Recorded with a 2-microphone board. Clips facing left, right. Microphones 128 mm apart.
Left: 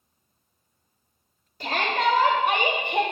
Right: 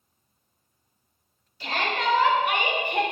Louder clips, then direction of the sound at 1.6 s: Left 3 dB; 50° left (ahead or behind).